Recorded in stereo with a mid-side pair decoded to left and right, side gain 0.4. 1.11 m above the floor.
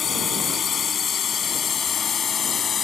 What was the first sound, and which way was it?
A drone, 55° left.